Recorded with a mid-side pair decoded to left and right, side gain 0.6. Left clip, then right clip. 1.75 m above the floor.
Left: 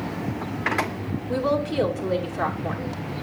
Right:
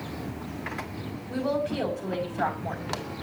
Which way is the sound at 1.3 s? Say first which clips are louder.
Left 4 dB; 55° left.